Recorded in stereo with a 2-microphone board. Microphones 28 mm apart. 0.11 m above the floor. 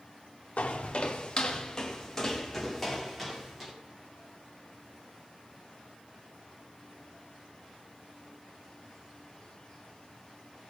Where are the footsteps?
50° left (ahead or behind), 1.5 m; by 3.7 s 5° right (ahead or behind), 3 m.